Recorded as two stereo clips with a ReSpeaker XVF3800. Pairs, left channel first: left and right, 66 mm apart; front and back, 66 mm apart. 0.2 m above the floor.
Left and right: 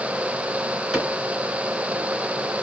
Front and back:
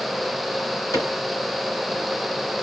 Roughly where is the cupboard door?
Ahead.